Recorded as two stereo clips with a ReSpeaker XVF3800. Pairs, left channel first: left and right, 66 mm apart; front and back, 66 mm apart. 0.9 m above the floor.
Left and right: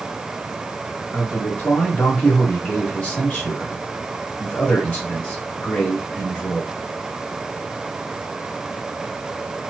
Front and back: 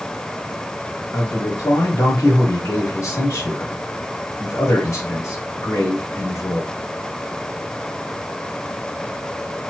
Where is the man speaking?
25° left, 1.4 m.